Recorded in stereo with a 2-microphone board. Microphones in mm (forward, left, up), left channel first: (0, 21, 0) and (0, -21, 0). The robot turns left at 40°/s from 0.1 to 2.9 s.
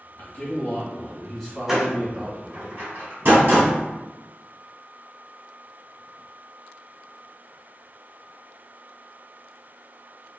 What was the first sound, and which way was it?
A man speaking, 65° left.